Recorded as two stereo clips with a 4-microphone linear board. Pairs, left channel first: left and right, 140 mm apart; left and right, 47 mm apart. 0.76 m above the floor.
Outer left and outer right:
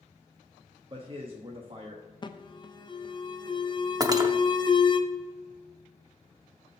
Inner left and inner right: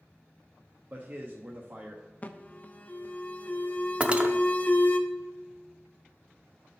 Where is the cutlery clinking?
25° right (ahead or behind), 0.6 m.